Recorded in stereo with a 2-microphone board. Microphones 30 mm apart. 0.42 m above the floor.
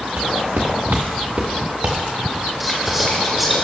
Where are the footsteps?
80° right, 2.5 m; by 3.5 s 20° right (ahead or behind), 4 m.